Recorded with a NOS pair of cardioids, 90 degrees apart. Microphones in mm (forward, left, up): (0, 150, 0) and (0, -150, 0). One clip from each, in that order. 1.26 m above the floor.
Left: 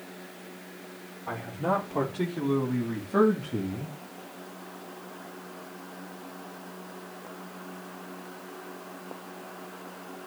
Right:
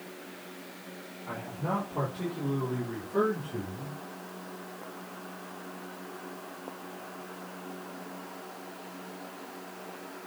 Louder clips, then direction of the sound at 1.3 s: Left 5 dB; 55° left.